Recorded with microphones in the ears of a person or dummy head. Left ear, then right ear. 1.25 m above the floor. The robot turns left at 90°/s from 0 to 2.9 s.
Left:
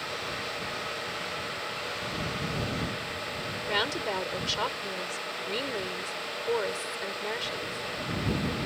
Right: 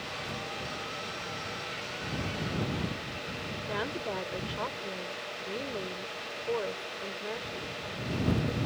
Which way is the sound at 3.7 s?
75° left (ahead or behind).